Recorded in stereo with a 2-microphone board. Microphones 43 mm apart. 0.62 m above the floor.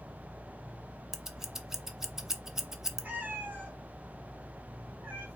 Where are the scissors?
10° right (ahead or behind), 0.7 m.